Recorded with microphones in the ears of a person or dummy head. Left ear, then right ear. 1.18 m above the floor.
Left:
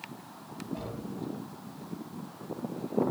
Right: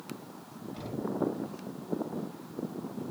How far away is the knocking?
About 5 m.